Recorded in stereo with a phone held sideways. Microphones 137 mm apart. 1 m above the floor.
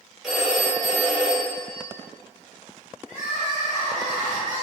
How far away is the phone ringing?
About 1.1 m.